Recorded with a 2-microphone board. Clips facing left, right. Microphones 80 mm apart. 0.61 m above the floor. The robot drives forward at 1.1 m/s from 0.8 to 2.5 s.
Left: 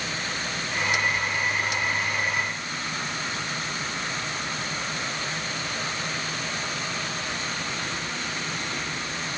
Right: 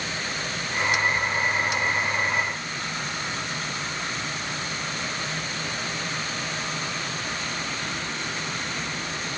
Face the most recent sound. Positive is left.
No sound to turn to.